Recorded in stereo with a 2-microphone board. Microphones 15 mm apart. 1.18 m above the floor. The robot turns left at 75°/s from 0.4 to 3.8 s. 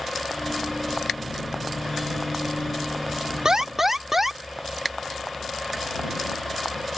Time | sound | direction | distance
3.5 | an alarm | 45° right (ahead or behind) | ?